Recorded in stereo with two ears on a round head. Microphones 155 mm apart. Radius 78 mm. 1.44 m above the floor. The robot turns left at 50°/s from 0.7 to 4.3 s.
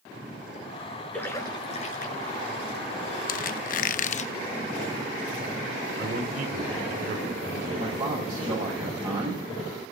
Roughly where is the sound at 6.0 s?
Right.